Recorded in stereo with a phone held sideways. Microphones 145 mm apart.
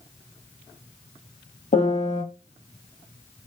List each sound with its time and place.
1.7 s a piano: 60° left (ahead or behind), 1.3 m